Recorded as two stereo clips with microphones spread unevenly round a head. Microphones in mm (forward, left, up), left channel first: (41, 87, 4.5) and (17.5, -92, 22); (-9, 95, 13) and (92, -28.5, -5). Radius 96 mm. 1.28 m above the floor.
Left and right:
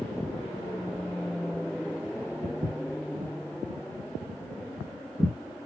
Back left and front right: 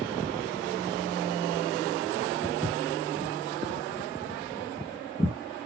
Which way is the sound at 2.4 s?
165° right.